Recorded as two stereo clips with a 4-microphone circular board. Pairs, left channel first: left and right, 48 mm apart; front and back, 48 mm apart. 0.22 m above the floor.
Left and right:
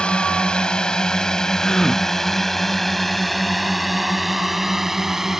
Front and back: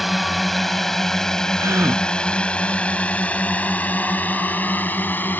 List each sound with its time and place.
0.0 s a drone: 95° left; by 5.4 s 10° right
1.6 s a gasp: 165° left